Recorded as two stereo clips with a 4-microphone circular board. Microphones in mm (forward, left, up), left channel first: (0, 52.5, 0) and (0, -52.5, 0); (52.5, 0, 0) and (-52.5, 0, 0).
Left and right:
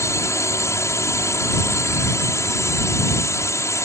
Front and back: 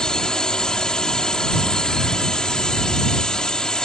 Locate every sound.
0.0 s a drone: 75° left